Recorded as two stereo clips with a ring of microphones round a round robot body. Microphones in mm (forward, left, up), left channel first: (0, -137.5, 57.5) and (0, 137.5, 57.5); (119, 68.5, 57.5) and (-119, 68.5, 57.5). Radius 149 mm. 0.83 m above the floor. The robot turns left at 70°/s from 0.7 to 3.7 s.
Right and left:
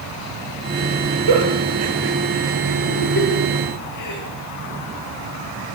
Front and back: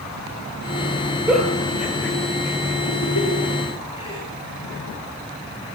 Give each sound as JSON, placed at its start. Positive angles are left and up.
{"t": 1.3, "sound": "a giggle", "azimuth_deg": 95, "distance_m": 9.5}